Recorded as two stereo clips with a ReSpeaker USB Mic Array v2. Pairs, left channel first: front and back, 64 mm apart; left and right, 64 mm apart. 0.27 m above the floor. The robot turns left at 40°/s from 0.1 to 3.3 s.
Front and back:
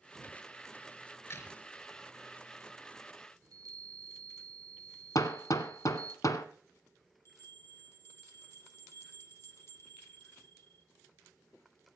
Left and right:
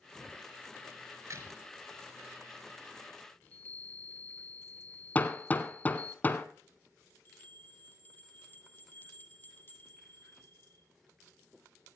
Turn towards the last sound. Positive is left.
turn(degrees=40)